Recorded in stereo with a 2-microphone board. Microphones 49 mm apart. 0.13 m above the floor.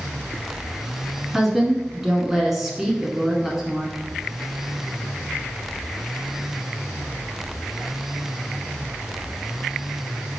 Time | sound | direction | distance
1.3 | a woman speaking | 5° right (ahead or behind) | 1.1 m